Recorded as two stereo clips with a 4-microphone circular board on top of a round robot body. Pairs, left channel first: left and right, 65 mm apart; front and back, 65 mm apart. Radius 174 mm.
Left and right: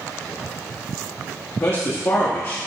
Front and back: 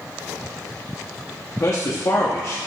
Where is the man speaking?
45° left, 0.9 m.